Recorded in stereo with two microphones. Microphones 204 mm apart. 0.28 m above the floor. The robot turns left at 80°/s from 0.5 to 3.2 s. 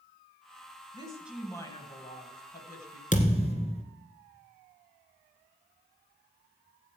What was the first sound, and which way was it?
A woman speaking, 145° right.